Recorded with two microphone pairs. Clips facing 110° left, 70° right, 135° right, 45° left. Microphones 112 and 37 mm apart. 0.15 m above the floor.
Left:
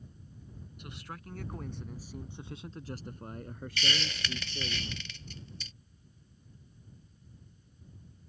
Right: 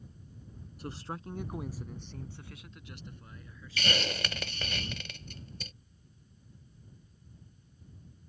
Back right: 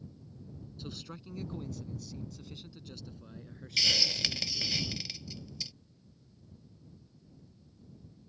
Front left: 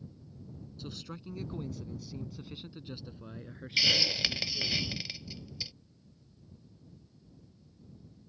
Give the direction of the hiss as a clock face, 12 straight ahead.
1 o'clock.